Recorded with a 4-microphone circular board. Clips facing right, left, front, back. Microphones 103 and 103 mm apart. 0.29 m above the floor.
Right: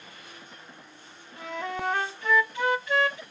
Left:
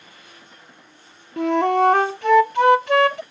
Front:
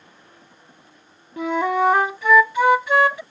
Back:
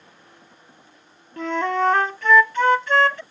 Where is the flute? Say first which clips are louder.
Left 16 dB, front 2 dB; 80° left.